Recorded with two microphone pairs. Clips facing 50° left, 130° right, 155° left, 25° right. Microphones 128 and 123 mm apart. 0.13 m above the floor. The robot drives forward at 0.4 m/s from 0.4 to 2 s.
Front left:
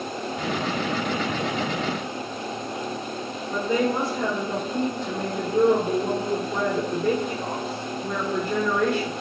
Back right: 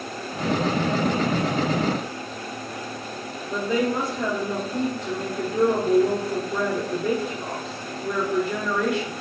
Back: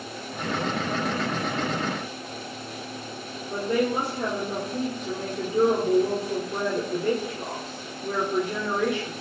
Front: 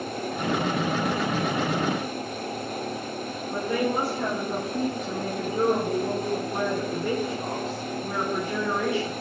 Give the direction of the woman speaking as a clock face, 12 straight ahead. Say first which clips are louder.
Even, back 2 dB; 7 o'clock.